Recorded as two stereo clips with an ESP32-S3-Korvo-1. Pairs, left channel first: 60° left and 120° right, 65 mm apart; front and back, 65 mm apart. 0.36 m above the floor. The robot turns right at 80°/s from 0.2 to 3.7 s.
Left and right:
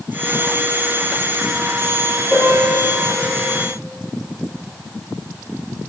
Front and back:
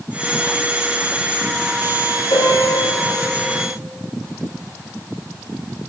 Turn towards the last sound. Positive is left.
turn(degrees=90)